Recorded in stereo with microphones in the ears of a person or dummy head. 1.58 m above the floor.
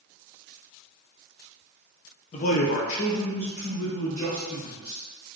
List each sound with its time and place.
2.3 s a man speaking: 40° left (ahead or behind), 0.7 m; by 5.0 s 25° left (ahead or behind), 2 m